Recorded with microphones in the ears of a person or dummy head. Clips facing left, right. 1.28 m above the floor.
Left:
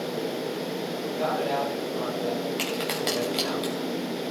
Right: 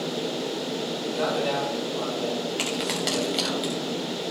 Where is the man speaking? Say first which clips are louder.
Right 2 dB; 70° right (ahead or behind), 8.5 m.